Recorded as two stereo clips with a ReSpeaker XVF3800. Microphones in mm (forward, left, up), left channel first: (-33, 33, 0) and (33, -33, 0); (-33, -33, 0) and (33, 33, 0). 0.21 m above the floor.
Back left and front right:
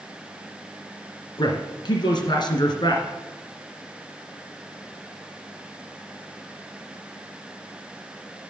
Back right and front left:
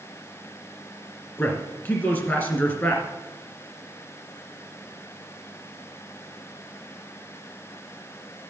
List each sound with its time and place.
1.4 s a man speaking: 165° left, 2.5 m